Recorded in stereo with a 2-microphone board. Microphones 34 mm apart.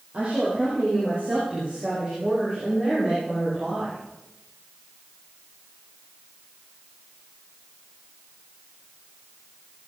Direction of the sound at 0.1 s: 40° right (ahead or behind).